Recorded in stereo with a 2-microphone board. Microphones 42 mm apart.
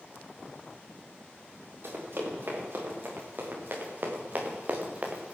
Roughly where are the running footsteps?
Right.